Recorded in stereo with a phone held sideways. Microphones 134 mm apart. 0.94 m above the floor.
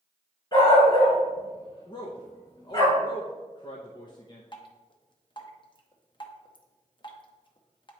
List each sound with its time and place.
0.5 s a dog barking: 35° left (ahead or behind), 3 m
1.9 s a man speaking: 35° left (ahead or behind), 0.7 m
4.5 s dripping: 40° left (ahead or behind), 0.8 m